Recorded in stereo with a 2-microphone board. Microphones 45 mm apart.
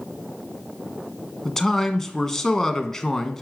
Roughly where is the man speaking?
Centre.